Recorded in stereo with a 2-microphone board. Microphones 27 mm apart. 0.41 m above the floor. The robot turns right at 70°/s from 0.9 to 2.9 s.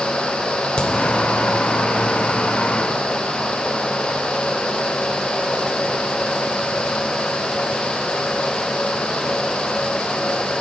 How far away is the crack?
About 1.7 m.